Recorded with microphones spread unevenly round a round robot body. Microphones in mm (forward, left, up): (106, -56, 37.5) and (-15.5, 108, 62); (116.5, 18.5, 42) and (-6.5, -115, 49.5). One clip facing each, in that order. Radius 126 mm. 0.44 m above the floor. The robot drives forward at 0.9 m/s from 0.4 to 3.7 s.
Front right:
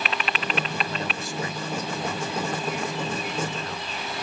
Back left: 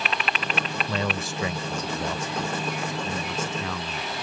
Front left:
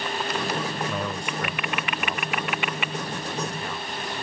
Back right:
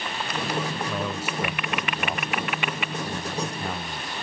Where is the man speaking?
135° left; by 4.1 s 165° left.